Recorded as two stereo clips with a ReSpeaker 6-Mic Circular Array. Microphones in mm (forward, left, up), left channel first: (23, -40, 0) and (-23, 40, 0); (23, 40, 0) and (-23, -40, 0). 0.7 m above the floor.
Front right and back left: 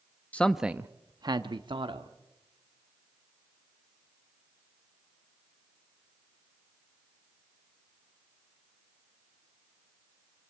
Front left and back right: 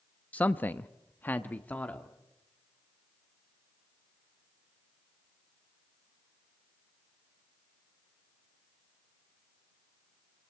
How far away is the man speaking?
About 0.6 m.